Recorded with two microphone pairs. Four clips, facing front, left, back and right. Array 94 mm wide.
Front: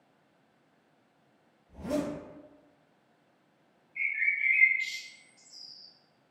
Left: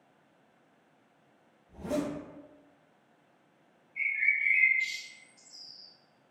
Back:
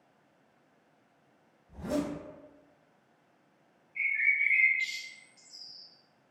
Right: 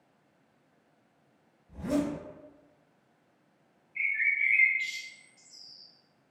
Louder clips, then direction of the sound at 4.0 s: Right 1 dB, back 1 dB; 150° right.